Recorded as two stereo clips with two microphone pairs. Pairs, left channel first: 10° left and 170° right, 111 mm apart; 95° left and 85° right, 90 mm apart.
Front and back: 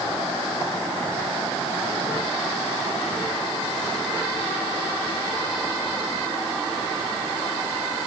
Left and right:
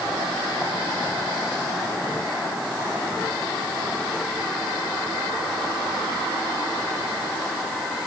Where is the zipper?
I don't hear a zipper.